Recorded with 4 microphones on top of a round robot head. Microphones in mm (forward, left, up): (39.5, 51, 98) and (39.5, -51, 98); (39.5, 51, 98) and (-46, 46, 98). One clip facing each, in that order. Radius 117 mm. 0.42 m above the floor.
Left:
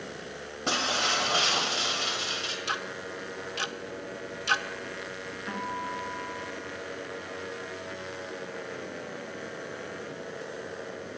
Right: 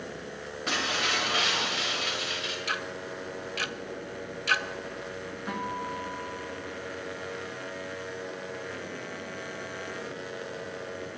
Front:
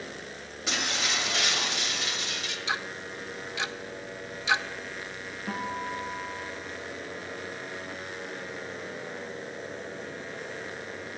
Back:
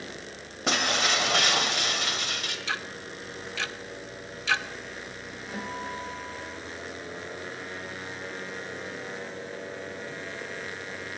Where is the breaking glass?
150° left, 1.8 m.